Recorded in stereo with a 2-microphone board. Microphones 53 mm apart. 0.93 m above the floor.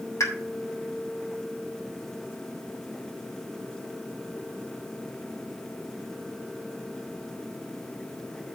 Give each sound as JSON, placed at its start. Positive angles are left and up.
{"t": 0.2, "sound": "a pop", "side_deg": 80, "distance_m": 3.0}